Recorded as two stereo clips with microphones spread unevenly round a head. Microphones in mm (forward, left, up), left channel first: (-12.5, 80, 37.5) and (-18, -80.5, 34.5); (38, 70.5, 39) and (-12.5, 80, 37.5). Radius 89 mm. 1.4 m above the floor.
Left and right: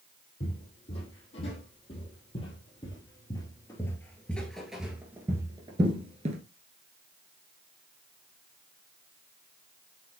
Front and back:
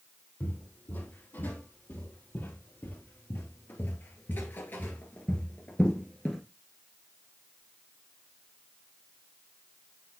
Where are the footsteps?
35° left, 4 m; by 6.4 s 80° right, 1.6 m.